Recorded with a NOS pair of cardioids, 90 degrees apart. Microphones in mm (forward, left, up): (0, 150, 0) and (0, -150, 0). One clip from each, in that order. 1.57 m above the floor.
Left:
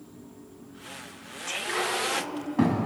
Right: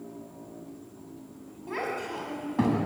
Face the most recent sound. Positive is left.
turn(degrees=5)